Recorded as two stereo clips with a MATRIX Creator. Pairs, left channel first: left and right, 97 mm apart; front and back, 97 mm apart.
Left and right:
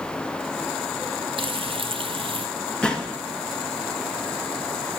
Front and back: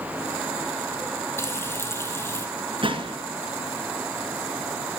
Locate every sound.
1.4 s frying: 65° right, 1.1 m
2.8 s a gunshot: 170° left, 1.5 m